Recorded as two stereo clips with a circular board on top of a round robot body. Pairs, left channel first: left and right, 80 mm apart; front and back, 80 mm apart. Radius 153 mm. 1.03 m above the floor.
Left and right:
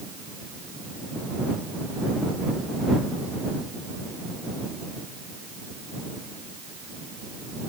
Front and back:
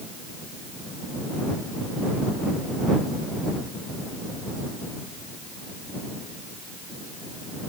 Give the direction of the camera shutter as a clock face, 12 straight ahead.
I don't hear a camera shutter.